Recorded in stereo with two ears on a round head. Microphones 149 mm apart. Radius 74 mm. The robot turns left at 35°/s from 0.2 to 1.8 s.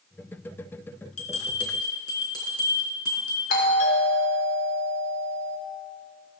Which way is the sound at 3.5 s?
55° left (ahead or behind).